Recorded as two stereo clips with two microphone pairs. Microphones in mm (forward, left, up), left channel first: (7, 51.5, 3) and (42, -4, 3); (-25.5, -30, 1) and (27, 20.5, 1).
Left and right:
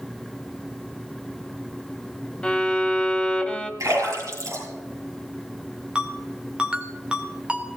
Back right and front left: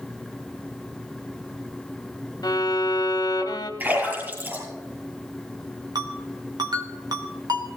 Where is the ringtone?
20° left, 2.5 m.